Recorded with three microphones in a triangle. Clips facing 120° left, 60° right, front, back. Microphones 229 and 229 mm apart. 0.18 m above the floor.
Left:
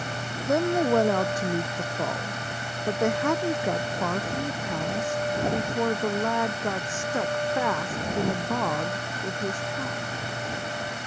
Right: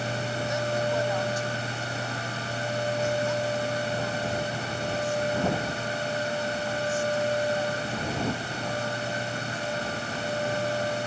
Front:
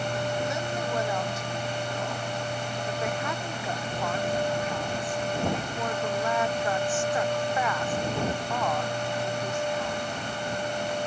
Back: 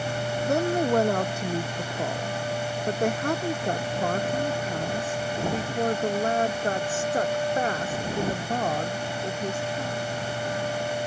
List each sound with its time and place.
0.5 s a woman speaking: 150° left; by 10.0 s 125° left